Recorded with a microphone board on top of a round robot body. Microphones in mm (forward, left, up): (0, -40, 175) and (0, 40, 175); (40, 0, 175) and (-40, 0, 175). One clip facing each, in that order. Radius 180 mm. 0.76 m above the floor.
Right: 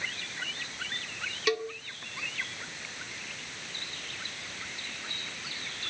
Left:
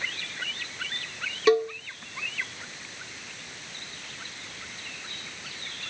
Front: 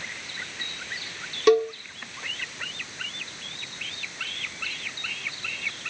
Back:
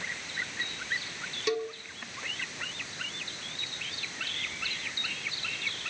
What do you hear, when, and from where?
1.5 s a cowbell: 35° left, 1.7 m